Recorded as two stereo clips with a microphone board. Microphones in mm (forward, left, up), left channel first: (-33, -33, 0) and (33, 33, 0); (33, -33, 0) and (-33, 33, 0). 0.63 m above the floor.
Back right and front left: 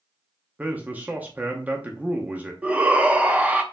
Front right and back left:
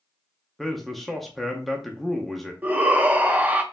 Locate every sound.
0.6 s a man speaking: 40° left, 0.6 m
2.6 s a shout: 95° left, 0.6 m